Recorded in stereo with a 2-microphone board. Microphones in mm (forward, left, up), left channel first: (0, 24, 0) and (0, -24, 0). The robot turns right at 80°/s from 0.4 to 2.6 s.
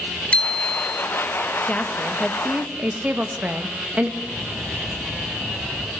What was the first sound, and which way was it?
A bicycle bell, 155° left.